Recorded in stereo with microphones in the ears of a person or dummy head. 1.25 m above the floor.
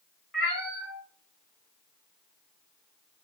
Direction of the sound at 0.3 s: Centre (ahead or behind).